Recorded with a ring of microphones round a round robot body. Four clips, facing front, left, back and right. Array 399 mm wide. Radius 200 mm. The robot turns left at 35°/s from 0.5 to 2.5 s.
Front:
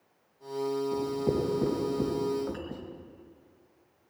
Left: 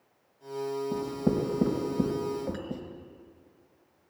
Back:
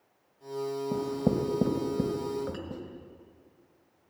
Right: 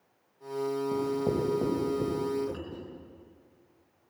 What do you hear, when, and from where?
0.9 s writing: 170° left, 3.5 m; by 2.8 s 115° left, 3.5 m
2.5 s a clink: 130° left, 4 m